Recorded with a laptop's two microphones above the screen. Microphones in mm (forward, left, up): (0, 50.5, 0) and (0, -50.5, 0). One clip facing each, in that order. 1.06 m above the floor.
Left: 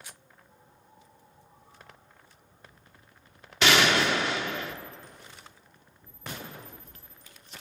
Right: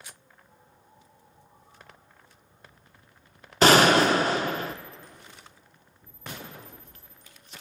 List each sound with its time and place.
3.6 s a gunshot: 40° right (ahead or behind), 0.8 m